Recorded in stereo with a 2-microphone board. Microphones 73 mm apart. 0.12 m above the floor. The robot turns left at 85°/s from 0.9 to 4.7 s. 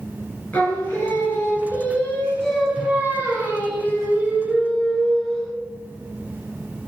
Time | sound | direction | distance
0.5 | singing | 150° left | 1.4 m